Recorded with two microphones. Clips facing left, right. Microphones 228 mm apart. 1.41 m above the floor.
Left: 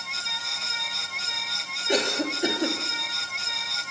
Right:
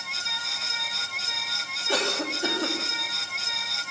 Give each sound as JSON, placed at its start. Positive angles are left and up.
{"t": 1.9, "sound": "a cough", "side_deg": 20, "distance_m": 3.0}